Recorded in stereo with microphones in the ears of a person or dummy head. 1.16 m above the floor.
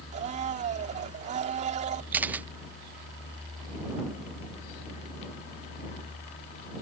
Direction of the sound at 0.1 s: 40° right (ahead or behind).